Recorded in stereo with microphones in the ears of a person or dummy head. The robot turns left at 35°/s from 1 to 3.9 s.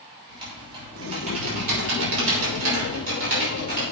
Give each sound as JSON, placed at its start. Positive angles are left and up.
{"t": 0.3, "sound": "typing on a keyboard", "azimuth_deg": -30, "distance_m": 5.0}